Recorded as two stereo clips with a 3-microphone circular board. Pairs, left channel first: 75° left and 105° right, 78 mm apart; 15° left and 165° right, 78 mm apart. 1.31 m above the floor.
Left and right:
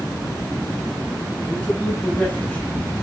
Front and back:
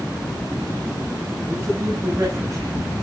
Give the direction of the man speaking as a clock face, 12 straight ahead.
7 o'clock.